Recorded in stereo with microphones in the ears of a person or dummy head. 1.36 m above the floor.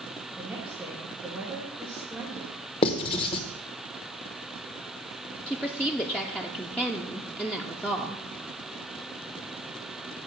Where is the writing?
30° left (ahead or behind), 0.8 m.